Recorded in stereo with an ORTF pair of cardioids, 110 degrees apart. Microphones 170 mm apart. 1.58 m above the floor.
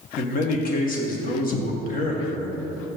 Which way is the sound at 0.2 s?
55° left.